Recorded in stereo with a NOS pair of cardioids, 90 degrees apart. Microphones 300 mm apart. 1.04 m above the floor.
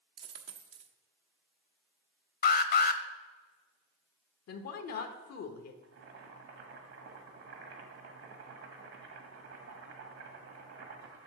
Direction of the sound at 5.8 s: 60° right.